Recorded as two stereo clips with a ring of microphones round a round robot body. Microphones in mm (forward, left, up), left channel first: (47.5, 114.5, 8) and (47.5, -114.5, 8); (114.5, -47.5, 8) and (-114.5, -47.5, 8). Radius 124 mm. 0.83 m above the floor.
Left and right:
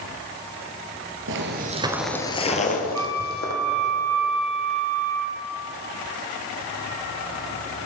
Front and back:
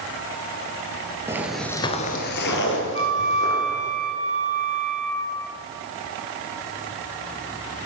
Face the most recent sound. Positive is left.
turn(degrees=-65)